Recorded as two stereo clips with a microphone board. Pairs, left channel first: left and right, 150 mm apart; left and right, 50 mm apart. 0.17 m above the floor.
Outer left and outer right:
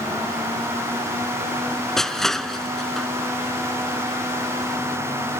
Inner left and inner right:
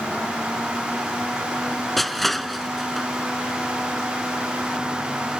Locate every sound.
2.0 s crushing: 5° left (ahead or behind)